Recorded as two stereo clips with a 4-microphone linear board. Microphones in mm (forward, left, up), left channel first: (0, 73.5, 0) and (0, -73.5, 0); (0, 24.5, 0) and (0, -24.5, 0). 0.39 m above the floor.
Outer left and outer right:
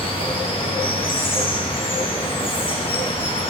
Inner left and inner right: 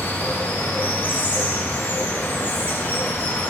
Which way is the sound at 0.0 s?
40° left (ahead or behind).